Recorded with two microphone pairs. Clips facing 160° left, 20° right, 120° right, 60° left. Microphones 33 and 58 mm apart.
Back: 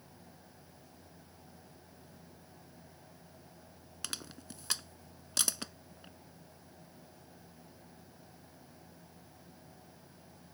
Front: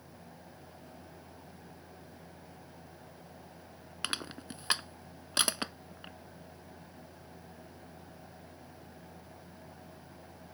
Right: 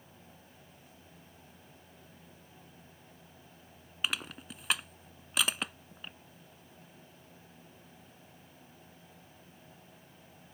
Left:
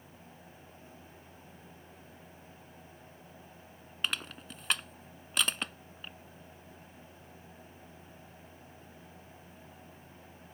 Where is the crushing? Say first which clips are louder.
Front 7 dB, even; 40° right.